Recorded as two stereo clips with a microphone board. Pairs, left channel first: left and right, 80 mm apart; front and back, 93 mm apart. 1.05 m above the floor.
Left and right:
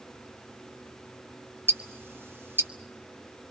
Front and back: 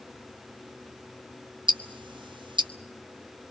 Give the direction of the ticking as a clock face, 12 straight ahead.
5 o'clock.